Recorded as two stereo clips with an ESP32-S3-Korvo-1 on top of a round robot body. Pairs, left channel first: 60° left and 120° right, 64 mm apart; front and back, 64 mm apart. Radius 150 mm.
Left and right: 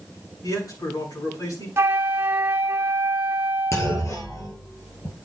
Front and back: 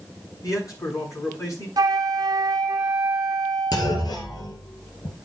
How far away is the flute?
About 1.0 m.